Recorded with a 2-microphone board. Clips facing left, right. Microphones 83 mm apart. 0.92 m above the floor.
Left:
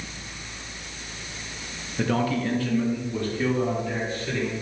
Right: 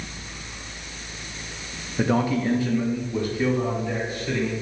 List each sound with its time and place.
2.0 s a man speaking: 20° right (ahead or behind), 0.8 m; by 4.5 s 10° right (ahead or behind), 3.5 m